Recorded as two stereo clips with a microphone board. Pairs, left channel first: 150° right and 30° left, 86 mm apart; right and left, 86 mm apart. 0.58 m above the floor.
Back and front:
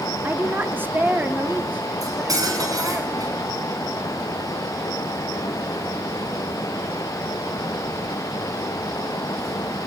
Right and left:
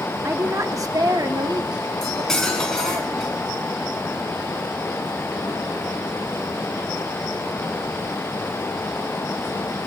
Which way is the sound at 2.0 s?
10° right.